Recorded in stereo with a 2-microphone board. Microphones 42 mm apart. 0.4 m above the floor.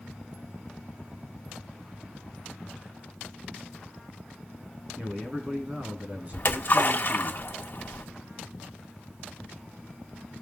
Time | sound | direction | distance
5.0 | a man speaking | 40° right (ahead or behind) | 3.5 m
6.3 | a splash | 50° left (ahead or behind) | 2 m